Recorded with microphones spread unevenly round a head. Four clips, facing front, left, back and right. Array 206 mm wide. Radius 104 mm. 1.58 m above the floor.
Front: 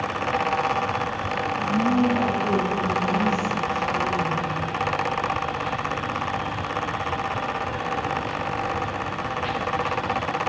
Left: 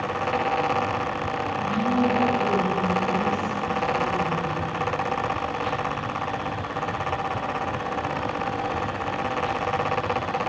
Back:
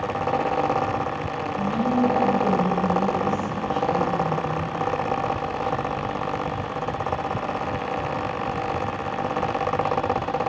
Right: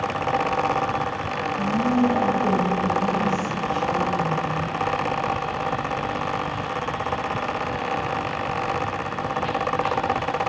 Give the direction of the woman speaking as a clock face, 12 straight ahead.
5 o'clock.